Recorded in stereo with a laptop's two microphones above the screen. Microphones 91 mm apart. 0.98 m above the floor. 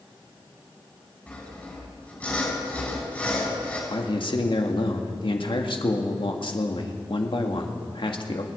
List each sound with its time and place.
1.3 s sawing: 15° left (ahead or behind), 7 m
3.9 s a man speaking: 65° left (ahead or behind), 1.8 m